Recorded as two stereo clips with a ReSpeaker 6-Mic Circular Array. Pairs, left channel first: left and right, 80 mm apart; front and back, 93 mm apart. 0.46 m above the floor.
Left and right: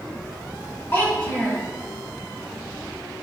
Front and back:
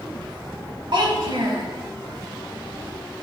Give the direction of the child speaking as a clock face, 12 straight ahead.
7 o'clock.